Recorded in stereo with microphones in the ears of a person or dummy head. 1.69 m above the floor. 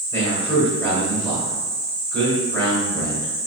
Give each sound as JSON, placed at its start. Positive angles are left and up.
{"t": 0.1, "sound": "a man speaking", "side_deg": 15, "distance_m": 1.8}